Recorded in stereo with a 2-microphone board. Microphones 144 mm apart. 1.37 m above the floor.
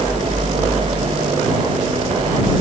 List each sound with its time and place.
Only background noise.